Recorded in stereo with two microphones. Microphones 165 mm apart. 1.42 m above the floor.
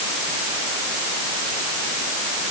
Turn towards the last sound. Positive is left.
No sound to turn to.